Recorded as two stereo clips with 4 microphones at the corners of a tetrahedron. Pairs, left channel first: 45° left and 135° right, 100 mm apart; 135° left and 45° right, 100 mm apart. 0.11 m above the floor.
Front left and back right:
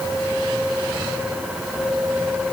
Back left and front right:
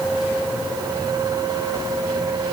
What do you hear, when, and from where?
Only background noise.